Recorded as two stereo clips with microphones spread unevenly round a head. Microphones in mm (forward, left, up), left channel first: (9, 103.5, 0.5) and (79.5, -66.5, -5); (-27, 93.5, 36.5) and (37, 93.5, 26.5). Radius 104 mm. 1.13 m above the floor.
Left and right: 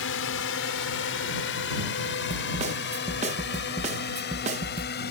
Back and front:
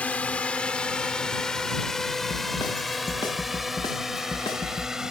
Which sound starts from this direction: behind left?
A drone, at 0.0 s.